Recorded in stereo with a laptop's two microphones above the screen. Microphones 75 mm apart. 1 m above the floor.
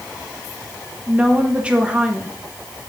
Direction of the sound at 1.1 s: 15° right (ahead or behind).